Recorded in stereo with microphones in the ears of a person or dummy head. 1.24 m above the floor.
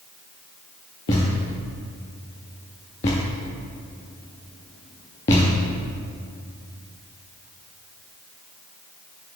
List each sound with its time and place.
1.1 s a thud: 20° left (ahead or behind), 0.7 m